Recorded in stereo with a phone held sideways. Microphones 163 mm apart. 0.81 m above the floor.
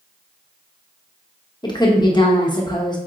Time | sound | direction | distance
1.6 | a woman speaking | 25° left (ahead or behind) | 0.8 m